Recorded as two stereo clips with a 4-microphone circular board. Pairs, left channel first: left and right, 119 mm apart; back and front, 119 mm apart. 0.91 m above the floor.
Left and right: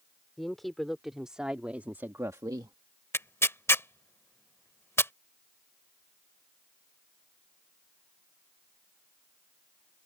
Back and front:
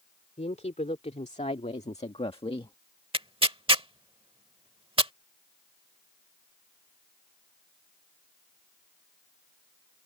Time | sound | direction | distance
0.4 | a woman speaking | straight behind | ?
3.1 | tearing paper | 25° left | ?